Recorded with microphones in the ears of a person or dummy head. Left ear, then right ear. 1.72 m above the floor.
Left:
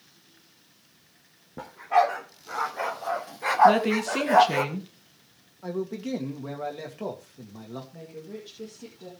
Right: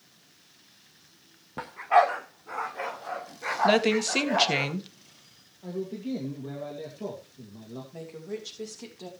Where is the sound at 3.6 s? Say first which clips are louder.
Left 2 dB; 25° right (ahead or behind), 1.8 m.